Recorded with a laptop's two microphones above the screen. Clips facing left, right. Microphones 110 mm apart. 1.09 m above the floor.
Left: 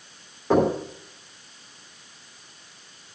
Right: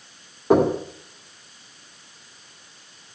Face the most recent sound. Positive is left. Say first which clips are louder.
# right 3 dB
turn(degrees=-15)  # may be behind; listen again after turning